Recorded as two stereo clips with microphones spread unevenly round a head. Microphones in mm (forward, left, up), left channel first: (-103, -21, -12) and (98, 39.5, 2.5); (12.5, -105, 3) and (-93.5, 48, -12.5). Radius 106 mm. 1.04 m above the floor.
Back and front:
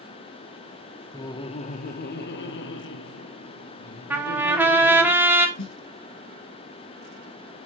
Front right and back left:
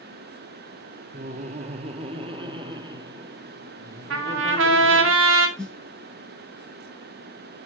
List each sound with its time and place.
1.1 s laughter: 130° left, 0.7 m; by 5.1 s 160° right, 2.5 m
4.1 s a trumpet: 100° left, 1.0 m
5.6 s a snare drum: 140° right, 2 m